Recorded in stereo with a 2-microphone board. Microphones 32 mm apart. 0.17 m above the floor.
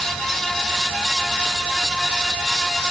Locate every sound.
Only background noise.